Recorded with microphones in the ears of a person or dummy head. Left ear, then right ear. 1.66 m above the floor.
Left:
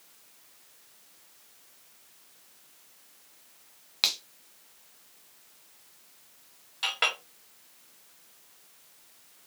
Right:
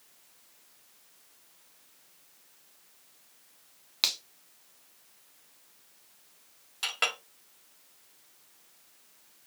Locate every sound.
4.0 s a finger snap: 5° right (ahead or behind), 0.6 m
6.8 s a clink: 10° right (ahead or behind), 0.8 m